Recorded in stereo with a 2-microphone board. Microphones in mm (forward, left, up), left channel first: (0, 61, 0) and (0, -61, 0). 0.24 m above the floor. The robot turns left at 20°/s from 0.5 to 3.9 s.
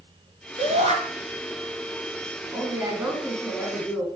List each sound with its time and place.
0.6 s a shout: 65° right (ahead or behind), 4 m
2.5 s a woman speaking: 25° right (ahead or behind), 2.5 m; by 4.1 s 5° right (ahead or behind), 2.5 m